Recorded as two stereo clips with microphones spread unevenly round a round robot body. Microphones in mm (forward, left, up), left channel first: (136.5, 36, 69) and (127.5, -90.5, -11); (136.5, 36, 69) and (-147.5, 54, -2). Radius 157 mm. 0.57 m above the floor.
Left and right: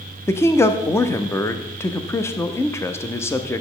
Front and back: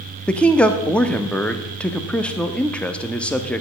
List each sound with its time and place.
0.3 s a man speaking: 125° right, 0.8 m